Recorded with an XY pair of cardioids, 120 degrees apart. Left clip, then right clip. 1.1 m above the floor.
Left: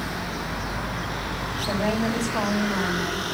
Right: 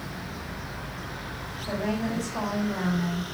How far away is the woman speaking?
About 2.5 m.